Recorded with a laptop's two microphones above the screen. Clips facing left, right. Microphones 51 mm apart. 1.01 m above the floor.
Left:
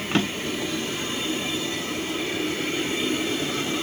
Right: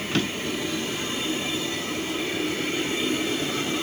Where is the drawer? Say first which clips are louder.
Left 2 dB; 30° left (ahead or behind), 1.1 m.